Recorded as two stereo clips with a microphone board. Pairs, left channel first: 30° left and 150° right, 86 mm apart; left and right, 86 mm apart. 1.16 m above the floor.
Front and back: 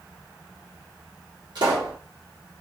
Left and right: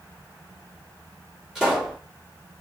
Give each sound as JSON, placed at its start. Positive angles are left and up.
{"t": 1.6, "sound": "a pop", "azimuth_deg": -175, "distance_m": 1.9}